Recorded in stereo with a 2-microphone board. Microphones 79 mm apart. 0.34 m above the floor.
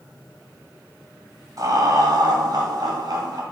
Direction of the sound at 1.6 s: 50° right (ahead or behind).